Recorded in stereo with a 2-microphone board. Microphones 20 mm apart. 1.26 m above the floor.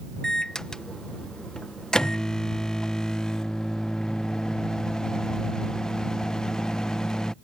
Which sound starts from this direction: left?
A microwave, at 0.2 s.